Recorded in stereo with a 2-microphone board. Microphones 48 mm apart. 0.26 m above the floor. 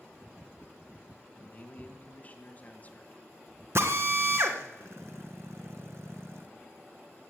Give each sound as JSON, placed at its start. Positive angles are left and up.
{"t": 1.4, "sound": "a man speaking", "side_deg": 30, "distance_m": 2.0}
{"t": 3.8, "sound": "a drill", "side_deg": -60, "distance_m": 1.7}